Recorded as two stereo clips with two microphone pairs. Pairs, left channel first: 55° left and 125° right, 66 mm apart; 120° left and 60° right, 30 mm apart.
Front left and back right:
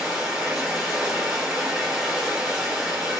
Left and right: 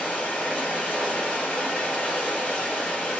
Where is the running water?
150° left, 1.3 m.